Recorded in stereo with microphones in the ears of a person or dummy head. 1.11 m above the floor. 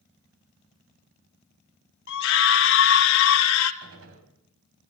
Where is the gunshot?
80° right, 4.5 m.